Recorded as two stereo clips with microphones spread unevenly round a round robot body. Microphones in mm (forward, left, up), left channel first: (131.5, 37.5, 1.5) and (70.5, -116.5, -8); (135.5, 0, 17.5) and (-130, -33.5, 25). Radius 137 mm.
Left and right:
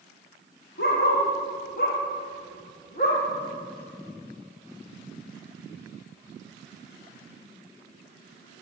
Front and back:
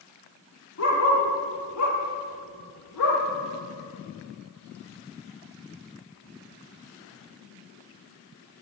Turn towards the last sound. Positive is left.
turn(degrees=25)